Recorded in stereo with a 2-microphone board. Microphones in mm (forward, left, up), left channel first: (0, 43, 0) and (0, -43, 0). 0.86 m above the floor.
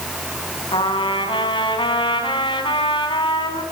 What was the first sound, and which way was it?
A trumpet, 85° left.